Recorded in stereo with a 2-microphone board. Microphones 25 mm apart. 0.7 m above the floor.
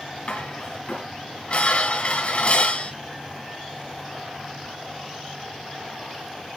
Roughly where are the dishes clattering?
Left.